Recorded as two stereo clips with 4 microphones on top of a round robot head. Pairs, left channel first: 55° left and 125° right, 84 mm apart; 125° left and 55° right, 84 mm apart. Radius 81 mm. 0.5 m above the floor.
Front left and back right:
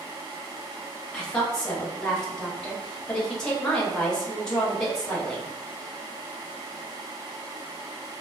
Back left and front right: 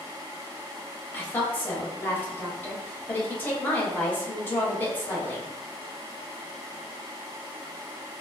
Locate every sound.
1.1 s a woman speaking: 120° left, 1.1 m